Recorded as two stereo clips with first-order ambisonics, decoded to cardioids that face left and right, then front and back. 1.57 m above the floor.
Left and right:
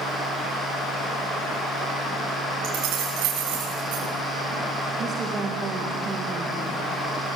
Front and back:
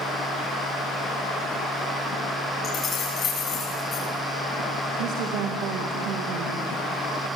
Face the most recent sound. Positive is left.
turn(degrees=-155)